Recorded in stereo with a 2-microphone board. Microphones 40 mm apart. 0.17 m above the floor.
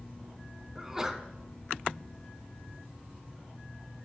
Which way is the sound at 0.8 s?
10° right (ahead or behind).